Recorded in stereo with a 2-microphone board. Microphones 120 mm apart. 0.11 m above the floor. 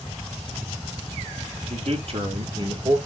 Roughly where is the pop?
No pop in this recording.